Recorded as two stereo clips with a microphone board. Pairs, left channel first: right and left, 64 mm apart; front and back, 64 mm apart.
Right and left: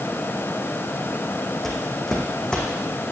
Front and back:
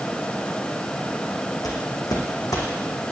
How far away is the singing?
No singing in this recording.